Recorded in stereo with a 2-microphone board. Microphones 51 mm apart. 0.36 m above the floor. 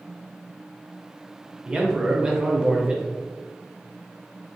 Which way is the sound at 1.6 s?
15° right (ahead or behind).